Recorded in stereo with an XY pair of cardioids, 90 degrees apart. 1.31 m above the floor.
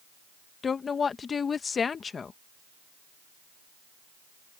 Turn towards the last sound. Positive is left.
turn(degrees=45)